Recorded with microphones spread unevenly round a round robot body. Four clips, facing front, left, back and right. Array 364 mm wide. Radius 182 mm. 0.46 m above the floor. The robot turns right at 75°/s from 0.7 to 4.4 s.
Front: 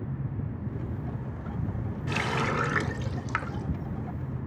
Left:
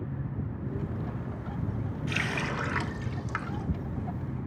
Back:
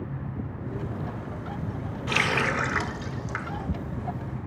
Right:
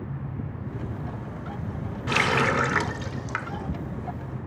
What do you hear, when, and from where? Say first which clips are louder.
2.1 s a running tap: right 11 dB, back 3 dB; 120° right, 0.7 m; by 3.6 s straight ahead, 0.7 m